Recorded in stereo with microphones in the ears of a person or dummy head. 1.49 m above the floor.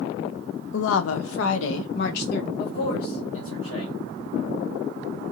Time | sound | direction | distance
0.7 | a woman speaking | 65° left (ahead or behind) | 0.7 m
2.6 | a man speaking | 80° left | 1.6 m